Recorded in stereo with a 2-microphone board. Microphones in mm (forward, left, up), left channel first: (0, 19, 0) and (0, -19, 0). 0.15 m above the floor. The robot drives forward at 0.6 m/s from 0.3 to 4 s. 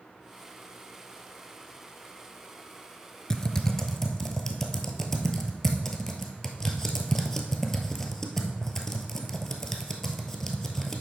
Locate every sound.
3.3 s typing on a keyboard: 20° left (ahead or behind), 0.6 m; by 11.0 s 10° left (ahead or behind), 1.0 m